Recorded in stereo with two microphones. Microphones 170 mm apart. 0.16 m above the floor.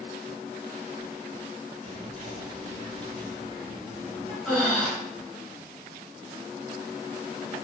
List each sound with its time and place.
1.8 s whispering: 35° right (ahead or behind), 2.0 m
4.5 s breathing: centre (ahead or behind), 1.6 m